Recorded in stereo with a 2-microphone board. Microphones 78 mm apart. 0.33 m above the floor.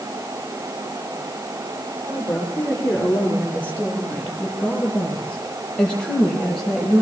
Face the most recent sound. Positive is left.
turn(degrees=5)  # may be behind; listen again after turning